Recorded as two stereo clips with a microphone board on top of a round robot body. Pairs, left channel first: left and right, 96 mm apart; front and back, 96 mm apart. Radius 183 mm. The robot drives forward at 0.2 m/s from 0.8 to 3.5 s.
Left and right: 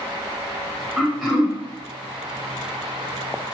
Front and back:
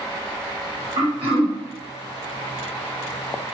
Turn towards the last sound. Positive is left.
turn(degrees=180)